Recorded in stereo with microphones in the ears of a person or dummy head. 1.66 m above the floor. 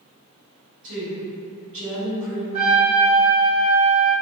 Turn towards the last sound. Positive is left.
turn(degrees=-40)  # may be behind; listen again after turning